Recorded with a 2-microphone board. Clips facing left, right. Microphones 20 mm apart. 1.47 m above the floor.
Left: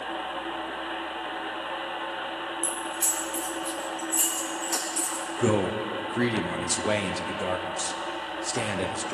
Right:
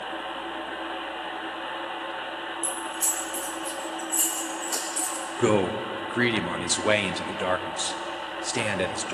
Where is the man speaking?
40° right (ahead or behind), 0.7 m.